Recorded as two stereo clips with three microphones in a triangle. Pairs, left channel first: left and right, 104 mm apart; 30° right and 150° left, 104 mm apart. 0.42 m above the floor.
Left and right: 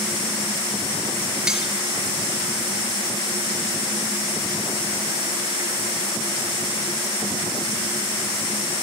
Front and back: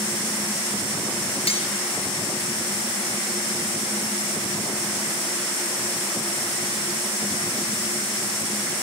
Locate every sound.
1.5 s cutlery clinking: 5° right, 4.5 m